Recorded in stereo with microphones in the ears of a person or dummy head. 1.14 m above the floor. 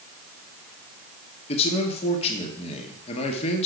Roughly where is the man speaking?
Left.